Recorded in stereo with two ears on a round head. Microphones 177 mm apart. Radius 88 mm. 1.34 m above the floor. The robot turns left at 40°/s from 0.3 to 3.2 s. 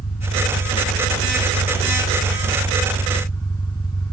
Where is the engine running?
135° left; by 4.1 s 20° left.